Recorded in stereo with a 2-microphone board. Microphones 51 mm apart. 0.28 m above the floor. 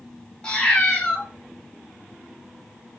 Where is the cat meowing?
20° left (ahead or behind), 0.8 m.